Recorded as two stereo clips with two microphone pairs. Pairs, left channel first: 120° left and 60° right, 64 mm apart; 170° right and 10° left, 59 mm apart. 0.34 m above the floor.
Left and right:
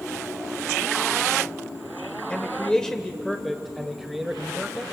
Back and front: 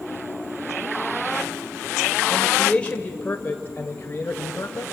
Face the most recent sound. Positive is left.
turn(degrees=-150)